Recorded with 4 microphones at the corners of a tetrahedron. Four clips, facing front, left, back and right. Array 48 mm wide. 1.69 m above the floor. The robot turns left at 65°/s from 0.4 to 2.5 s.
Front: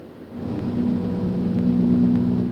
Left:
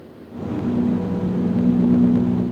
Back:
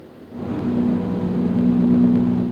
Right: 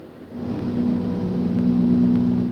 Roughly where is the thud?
No thud in this recording.